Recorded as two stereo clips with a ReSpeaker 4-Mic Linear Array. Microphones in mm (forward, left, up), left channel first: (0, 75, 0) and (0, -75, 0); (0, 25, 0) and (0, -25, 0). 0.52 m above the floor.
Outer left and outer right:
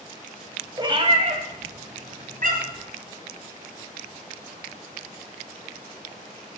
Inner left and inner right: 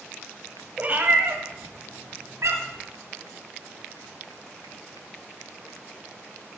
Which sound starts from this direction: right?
A cat meowing, at 0.8 s.